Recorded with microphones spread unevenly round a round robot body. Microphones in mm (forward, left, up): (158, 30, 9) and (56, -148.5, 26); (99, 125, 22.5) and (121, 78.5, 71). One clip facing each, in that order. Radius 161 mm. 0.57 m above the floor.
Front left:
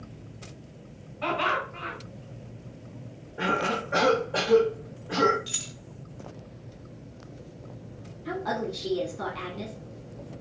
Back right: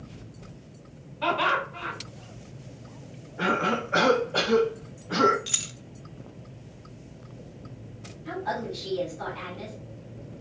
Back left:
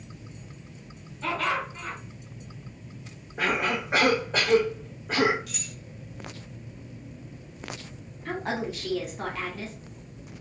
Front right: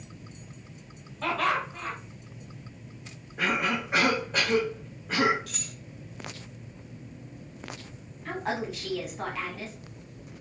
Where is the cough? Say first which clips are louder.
Back right 2 dB, back left 1 dB; 105° left, 2.0 m.